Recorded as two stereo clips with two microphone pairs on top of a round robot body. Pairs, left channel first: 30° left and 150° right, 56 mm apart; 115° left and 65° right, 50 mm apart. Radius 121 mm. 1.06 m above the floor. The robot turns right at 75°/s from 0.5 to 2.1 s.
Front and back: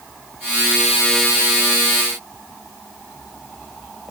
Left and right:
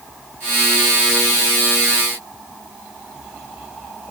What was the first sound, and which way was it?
Only background noise.